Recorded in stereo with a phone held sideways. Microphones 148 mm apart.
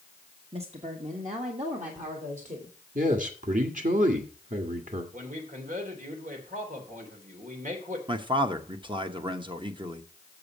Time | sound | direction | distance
0.5 | a woman speaking | 40° right (ahead or behind) | 1.2 m
3.0 | a man speaking | 65° right (ahead or behind) | 1.7 m
5.1 | a man speaking | 60° right (ahead or behind) | 3 m
8.1 | a man speaking | 35° right (ahead or behind) | 1.0 m